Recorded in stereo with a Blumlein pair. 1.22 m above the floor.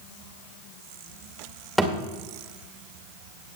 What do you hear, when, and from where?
1.8 s a thud: straight ahead, 2 m